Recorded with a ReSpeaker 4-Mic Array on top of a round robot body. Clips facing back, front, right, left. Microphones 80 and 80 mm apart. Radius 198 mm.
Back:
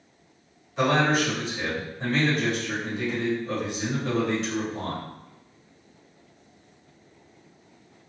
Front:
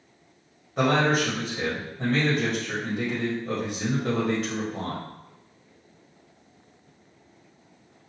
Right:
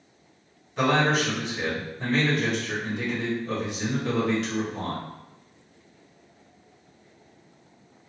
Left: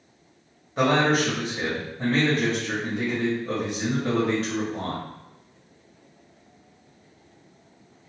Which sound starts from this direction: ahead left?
A man speaking, at 0.8 s.